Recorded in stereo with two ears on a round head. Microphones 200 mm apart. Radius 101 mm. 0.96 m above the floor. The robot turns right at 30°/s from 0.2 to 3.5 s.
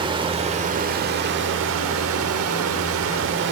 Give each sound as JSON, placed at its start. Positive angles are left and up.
{"t": 0.0, "sound": "running water", "azimuth_deg": -155, "distance_m": 1.2}